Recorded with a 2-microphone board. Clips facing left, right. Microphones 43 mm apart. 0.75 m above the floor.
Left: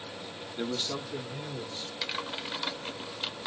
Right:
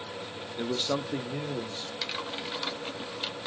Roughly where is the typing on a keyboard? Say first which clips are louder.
Left 1 dB; centre.